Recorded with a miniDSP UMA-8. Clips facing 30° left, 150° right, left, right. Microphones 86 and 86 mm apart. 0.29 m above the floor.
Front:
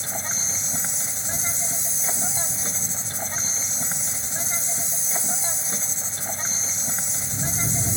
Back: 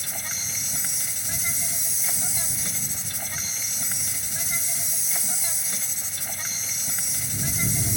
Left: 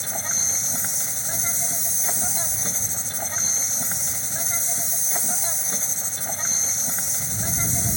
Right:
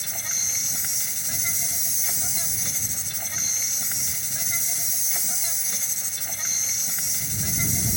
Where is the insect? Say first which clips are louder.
Front 5 dB, left 5 dB; 70° left.